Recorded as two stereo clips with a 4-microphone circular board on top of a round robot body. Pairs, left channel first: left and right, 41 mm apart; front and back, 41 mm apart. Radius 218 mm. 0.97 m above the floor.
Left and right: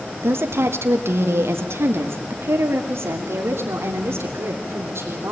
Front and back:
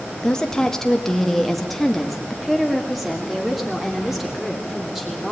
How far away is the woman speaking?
About 1.1 m.